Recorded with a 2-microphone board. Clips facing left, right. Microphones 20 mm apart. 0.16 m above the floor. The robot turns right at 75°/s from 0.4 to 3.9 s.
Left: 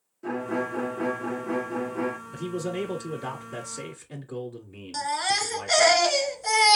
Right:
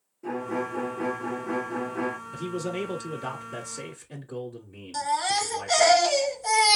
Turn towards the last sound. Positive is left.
turn(degrees=20)  # may be behind; listen again after turning